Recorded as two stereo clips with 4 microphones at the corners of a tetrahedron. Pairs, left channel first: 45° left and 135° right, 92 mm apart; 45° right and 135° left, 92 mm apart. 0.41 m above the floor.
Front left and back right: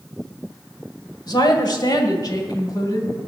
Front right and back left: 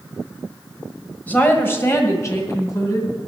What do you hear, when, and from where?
1.3 s a woman speaking: 25° left, 1.5 m; by 3.2 s straight ahead, 2.5 m